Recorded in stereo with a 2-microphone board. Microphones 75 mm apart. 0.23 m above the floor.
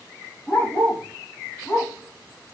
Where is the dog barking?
20° left (ahead or behind), 4 m; by 2.5 s 25° left (ahead or behind), 2.5 m.